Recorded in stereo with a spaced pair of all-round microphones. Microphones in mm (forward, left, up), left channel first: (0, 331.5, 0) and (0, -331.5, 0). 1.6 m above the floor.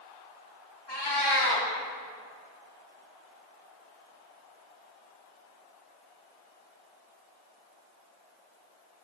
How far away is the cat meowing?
About 1.2 m.